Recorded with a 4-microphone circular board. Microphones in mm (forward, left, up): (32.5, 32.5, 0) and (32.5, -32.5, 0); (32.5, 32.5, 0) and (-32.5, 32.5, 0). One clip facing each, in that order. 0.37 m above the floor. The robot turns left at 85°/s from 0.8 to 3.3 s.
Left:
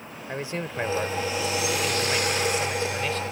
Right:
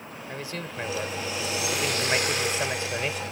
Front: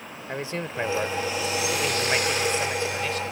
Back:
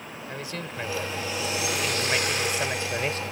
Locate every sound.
0.3 s a man speaking: 40° left; by 3.3 s 170° right